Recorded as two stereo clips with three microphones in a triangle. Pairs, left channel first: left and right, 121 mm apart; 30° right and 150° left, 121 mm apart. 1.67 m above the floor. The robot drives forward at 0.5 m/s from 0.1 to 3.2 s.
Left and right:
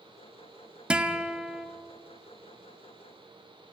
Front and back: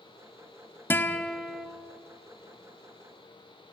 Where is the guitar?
25° right, 1.1 m; by 1.7 s 115° right, 1.0 m.